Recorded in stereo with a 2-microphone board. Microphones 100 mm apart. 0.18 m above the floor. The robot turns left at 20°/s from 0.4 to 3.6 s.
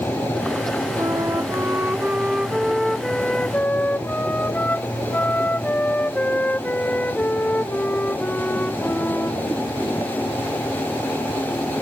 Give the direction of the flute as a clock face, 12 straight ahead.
5 o'clock.